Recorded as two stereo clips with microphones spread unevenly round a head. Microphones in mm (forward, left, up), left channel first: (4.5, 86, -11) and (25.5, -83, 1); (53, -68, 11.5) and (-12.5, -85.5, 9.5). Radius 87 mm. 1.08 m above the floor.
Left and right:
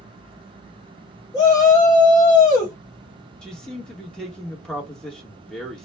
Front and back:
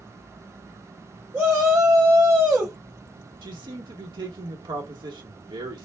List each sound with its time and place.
1.3 s a shout: 150° left, 0.8 m
3.4 s a man speaking: 175° right, 1.1 m